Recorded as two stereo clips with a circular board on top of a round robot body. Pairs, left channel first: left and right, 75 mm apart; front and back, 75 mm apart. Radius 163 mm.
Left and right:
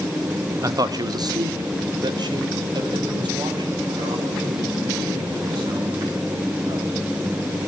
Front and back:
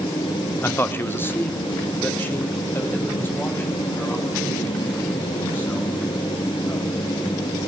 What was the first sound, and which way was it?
A man speaking, 55° right.